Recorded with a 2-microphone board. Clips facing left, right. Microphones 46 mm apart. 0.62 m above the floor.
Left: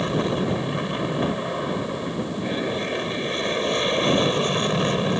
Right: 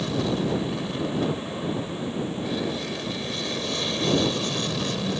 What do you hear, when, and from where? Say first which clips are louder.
0.0 s an aircraft: left 2 dB; 35° left (ahead or behind)